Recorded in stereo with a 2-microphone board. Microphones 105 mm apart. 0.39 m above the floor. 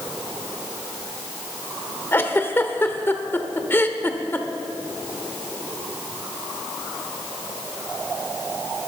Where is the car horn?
I don't hear a car horn.